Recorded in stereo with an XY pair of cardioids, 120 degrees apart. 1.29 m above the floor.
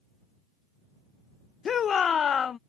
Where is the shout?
40° left.